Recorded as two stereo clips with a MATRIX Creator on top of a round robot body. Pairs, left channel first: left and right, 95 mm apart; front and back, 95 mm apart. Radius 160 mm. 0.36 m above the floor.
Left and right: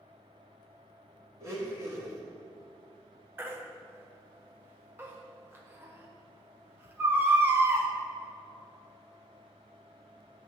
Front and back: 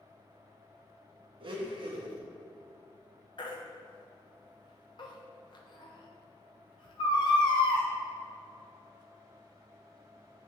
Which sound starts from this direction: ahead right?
A baby crying, at 3.4 s.